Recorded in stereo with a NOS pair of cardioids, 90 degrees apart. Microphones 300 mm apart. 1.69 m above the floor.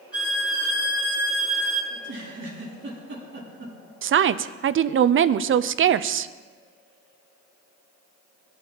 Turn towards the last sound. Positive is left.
turn(degrees=-45)